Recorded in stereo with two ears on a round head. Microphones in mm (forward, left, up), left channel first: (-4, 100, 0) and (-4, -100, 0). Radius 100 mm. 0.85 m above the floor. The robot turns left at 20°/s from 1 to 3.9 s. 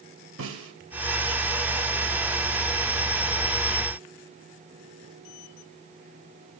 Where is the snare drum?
70° right (ahead or behind), 3 m.